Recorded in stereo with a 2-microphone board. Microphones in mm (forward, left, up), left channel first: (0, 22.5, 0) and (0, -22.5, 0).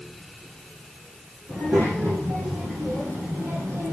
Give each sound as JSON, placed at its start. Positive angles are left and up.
{"t": 1.5, "sound": "a child speaking", "side_deg": -55, "distance_m": 7.5}